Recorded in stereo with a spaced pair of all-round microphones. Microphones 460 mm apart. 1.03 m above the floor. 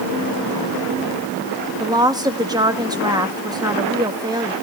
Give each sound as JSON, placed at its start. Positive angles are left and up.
{"t": 1.8, "sound": "a woman speaking", "side_deg": -10, "distance_m": 2.0}